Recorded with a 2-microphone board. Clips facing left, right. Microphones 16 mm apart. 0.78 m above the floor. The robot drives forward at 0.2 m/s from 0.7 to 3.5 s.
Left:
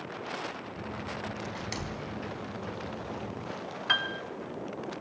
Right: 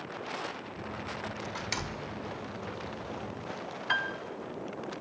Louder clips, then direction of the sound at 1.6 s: Right 1 dB; 10° right (ahead or behind).